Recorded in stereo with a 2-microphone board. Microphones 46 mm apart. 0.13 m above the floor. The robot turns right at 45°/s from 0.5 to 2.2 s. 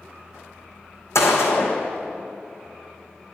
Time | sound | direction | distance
1.1 | a gunshot | 85° left | 1.8 m